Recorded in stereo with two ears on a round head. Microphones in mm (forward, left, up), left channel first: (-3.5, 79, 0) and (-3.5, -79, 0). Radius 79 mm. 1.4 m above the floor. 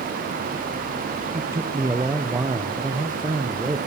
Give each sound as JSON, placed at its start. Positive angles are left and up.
{"t": 1.3, "sound": "a man speaking", "side_deg": -15, "distance_m": 0.6}